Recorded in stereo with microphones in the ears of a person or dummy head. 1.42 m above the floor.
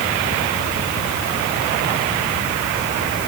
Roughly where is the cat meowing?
I don't hear a cat meowing.